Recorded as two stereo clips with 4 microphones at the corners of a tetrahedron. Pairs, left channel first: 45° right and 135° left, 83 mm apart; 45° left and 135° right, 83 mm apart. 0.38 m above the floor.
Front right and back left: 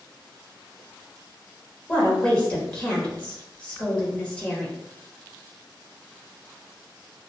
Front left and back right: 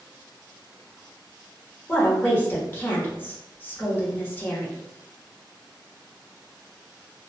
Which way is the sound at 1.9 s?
15° left.